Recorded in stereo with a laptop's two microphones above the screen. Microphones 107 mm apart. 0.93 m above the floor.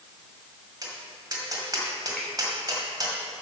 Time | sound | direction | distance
0.8 | tapping | 40° right (ahead or behind) | 2.5 m
2.2 | a finger snap | 5° left (ahead or behind) | 3 m